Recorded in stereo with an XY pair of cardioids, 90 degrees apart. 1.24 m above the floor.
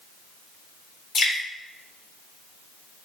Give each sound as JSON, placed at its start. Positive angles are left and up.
{"t": 1.1, "sound": "dripping", "azimuth_deg": 65, "distance_m": 0.8}